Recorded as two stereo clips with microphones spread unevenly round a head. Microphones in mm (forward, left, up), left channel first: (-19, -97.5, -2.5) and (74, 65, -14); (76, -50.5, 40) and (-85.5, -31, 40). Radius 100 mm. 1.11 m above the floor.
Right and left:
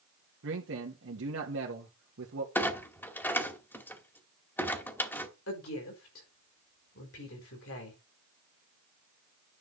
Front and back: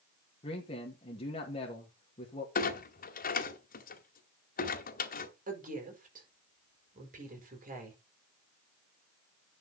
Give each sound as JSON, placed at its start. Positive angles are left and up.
{"t": 0.4, "sound": "a man speaking", "azimuth_deg": 50, "distance_m": 2.0}
{"t": 2.5, "sound": "a clunk", "azimuth_deg": -40, "distance_m": 2.0}
{"t": 5.5, "sound": "a woman speaking", "azimuth_deg": -150, "distance_m": 5.0}